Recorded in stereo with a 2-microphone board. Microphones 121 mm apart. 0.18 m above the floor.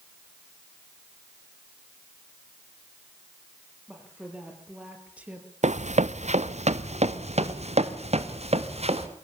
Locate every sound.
3.9 s a woman speaking: 10° right (ahead or behind), 5.5 m
5.6 s running footsteps: 80° right, 0.7 m; by 9.1 s 65° right (ahead or behind), 2.5 m